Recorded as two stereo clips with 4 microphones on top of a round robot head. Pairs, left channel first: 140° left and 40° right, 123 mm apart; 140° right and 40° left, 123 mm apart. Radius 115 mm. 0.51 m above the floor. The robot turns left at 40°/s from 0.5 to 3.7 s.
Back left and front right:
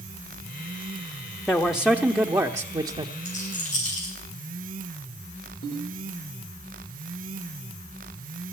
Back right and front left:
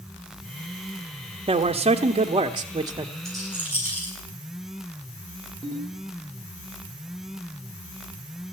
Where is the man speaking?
55° left, 0.9 m; by 3.1 s 10° right, 0.9 m.